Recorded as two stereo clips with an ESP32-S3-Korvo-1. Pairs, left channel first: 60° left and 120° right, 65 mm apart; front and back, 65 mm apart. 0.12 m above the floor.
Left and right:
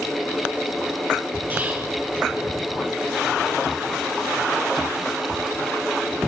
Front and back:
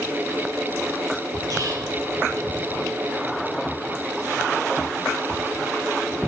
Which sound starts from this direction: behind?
Whispering, at 1.5 s.